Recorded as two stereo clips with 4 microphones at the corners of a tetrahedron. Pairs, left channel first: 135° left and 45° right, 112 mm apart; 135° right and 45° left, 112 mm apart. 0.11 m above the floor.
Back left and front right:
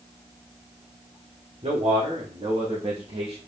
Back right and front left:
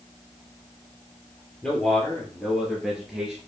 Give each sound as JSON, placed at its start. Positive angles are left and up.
{"t": 1.6, "sound": "a man speaking", "azimuth_deg": -55, "distance_m": 3.0}